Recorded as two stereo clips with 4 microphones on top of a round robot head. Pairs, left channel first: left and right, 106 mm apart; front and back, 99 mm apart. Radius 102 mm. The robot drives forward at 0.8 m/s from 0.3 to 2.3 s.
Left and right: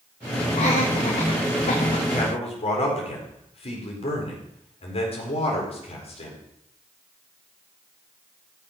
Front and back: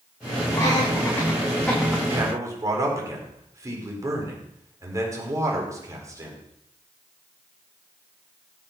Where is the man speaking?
120° left, 4.5 m.